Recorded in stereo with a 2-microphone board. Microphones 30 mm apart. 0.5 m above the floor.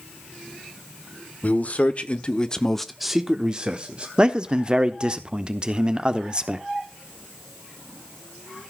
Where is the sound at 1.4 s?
55° left (ahead or behind), 1.3 m; by 4.1 s 35° right (ahead or behind), 1.3 m.